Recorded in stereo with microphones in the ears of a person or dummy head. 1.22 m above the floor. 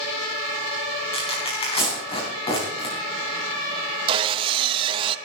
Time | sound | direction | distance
1.1 | tearing paper | 30° left (ahead or behind) | 4 m
4.1 | sawing | 30° right (ahead or behind) | 0.7 m